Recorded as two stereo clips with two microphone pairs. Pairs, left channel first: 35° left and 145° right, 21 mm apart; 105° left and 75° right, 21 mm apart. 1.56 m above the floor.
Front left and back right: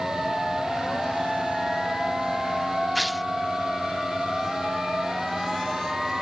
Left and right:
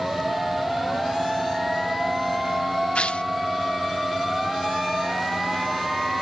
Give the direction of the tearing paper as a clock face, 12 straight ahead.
8 o'clock.